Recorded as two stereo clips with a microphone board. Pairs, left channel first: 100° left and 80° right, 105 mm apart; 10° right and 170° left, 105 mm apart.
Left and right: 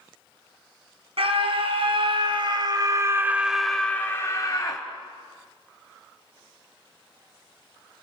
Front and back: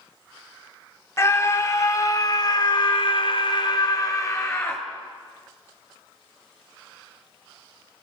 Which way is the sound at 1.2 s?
70° right.